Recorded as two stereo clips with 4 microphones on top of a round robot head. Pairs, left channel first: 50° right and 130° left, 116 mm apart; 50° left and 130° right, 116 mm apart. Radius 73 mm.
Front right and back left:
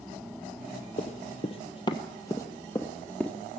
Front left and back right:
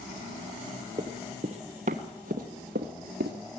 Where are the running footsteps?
80° right, 1.4 m; by 3.4 s 130° right, 1.7 m.